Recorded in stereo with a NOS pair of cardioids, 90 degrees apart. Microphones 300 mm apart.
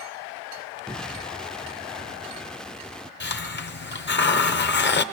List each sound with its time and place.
0.9 s an explosion: straight ahead, 0.6 m
3.2 s a hiss: 35° left, 1.1 m